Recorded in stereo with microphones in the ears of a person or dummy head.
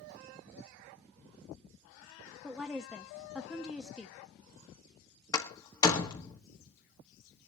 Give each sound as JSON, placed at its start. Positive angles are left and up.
{"t": 2.4, "sound": "a woman speaking", "side_deg": -5, "distance_m": 1.0}
{"t": 5.3, "sound": "a door slam", "side_deg": 20, "distance_m": 1.5}